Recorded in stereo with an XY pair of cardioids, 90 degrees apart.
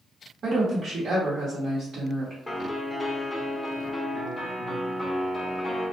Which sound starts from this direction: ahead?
A piano, at 2.5 s.